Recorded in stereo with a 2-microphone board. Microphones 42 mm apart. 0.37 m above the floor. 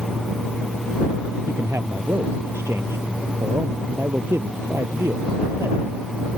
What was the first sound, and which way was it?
A man speaking, 80° right.